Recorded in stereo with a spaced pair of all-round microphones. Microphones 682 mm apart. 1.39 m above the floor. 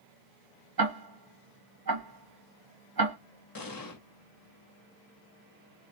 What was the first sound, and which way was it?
Ticking, 30° right (ahead or behind).